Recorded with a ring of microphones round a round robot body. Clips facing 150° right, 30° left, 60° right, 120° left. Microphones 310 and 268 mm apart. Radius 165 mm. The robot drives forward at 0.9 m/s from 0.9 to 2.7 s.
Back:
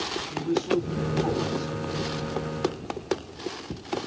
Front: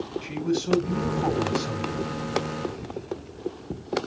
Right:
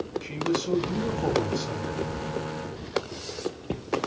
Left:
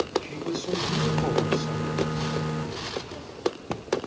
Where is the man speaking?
10° left, 2.5 m; by 2.0 s 20° left, 1.7 m.